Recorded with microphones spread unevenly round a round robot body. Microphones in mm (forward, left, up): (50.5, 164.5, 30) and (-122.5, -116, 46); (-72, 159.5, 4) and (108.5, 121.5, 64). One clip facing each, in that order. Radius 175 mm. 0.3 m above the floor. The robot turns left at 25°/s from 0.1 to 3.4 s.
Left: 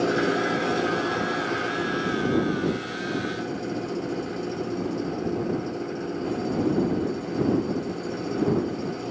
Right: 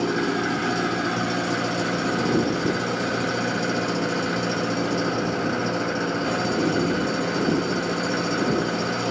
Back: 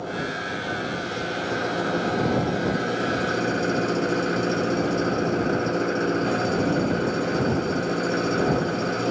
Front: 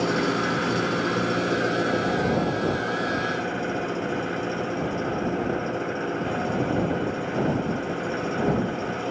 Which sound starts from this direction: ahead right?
An engine running, at 0.0 s.